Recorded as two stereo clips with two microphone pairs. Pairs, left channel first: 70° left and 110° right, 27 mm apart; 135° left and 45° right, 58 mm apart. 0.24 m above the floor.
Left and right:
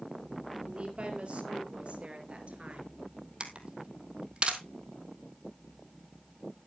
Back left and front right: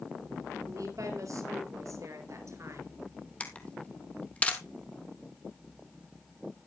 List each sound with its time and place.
0.7 s a woman speaking: 65° right, 5 m; by 3.0 s 75° right, 3.5 m
3.4 s a camera shutter: 155° right, 1.4 m